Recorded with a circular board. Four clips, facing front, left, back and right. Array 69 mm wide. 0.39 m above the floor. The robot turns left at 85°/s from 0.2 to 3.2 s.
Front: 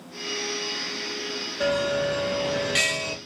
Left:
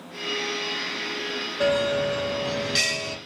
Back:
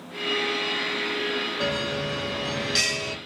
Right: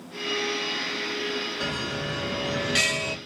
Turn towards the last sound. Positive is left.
turn(degrees=-65)